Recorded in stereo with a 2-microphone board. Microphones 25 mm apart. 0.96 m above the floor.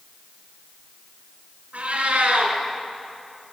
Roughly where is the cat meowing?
Right.